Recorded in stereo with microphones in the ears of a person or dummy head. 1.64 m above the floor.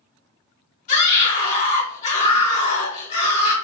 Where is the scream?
45° left (ahead or behind), 2 m.